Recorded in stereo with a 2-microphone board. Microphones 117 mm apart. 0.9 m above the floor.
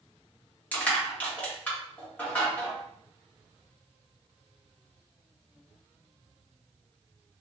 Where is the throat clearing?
I don't hear throat clearing.